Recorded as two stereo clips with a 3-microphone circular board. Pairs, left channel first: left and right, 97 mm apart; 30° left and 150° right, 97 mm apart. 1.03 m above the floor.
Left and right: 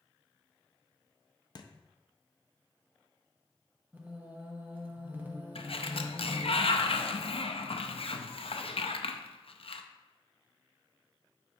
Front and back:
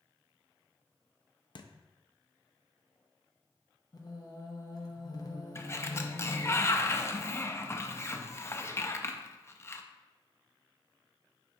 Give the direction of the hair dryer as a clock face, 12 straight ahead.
I don't hear a hair dryer.